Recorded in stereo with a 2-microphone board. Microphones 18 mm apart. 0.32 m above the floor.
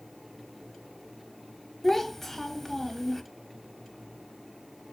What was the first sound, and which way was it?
A child speaking, 10° left (ahead or behind).